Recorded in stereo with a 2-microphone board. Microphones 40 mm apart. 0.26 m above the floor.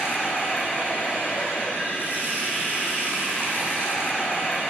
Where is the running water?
60° left (ahead or behind), 9 m.